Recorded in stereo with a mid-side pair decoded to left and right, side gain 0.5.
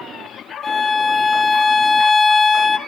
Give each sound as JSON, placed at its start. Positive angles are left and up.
{"t": 0.6, "sound": "a violin", "azimuth_deg": 30, "distance_m": 0.8}